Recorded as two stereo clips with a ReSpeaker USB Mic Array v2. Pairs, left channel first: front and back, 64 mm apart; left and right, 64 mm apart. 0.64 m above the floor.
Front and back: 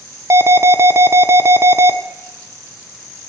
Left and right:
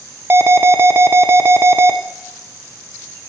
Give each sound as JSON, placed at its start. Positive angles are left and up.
{"t": 0.3, "sound": "an alarm", "azimuth_deg": -140, "distance_m": 0.9}